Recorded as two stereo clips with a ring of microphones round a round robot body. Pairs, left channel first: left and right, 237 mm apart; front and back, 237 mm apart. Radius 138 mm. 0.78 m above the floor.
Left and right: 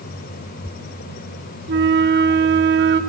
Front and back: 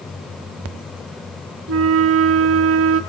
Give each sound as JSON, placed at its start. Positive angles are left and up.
{"t": 1.7, "sound": "a flute", "azimuth_deg": -140, "distance_m": 1.3}